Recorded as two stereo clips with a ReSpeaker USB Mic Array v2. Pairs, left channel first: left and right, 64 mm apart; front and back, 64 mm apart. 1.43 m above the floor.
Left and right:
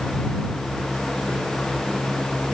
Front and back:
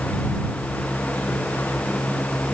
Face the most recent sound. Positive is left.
No sound to turn to.